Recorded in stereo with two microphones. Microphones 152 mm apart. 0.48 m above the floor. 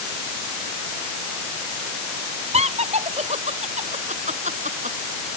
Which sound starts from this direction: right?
Laughter, at 2.5 s.